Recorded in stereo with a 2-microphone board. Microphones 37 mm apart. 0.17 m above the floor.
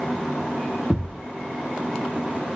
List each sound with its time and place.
0.9 s a thud: 20° left (ahead or behind), 2 m